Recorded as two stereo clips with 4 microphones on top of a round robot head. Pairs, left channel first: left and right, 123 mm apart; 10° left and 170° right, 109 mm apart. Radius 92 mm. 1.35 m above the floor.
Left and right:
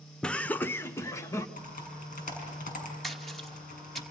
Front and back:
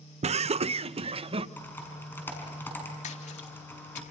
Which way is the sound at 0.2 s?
175° left.